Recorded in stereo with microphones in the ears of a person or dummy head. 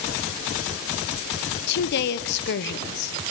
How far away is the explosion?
I don't hear an explosion.